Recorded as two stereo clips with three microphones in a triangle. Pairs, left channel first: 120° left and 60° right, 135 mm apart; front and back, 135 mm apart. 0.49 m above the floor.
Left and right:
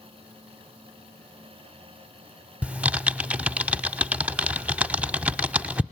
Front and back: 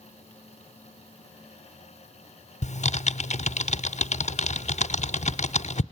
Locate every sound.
2.6 s typing on a keyboard: 20° left, 0.6 m